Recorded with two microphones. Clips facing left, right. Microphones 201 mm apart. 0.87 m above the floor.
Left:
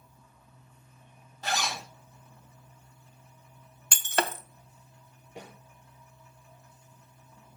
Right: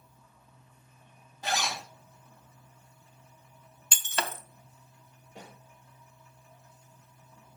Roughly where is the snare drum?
Centre.